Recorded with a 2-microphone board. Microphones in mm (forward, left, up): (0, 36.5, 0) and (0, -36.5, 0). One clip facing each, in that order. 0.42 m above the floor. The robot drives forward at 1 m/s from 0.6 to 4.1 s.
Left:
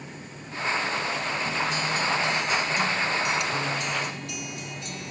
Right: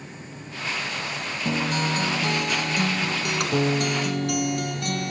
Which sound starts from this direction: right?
A guitar, at 1.4 s.